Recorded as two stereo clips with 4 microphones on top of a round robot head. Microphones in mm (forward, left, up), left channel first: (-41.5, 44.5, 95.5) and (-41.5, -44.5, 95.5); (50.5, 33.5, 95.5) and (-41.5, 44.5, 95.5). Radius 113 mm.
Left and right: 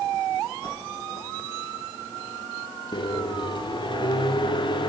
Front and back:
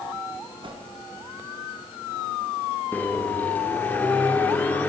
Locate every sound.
0.6 s a whoosh: 140° left, 3.5 m
2.9 s a microwave: 65° left, 1.7 m